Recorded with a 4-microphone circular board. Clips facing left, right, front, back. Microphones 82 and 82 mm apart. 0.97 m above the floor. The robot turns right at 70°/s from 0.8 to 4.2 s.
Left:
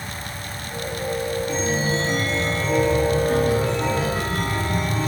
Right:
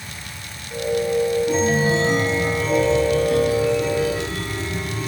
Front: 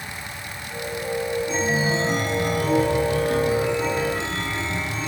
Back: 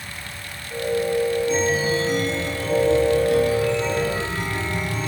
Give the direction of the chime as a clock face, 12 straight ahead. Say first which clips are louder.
Right 5 dB, back 2 dB; 3 o'clock.